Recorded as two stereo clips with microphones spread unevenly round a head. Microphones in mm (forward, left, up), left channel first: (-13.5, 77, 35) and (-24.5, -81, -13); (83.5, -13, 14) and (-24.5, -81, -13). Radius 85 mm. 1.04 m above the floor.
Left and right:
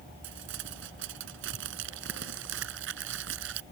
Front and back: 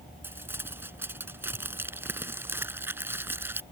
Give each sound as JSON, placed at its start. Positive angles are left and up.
{"t": 0.2, "sound": "crumpling", "azimuth_deg": -75}